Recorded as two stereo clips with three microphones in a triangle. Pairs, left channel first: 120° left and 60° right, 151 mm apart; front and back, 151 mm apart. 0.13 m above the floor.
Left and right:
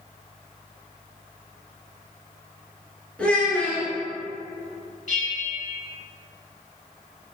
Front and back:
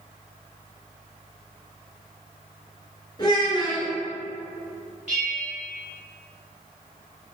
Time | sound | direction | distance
3.2 | a child speaking | 45° left | 0.9 m
5.1 | a bell | 95° left | 1.3 m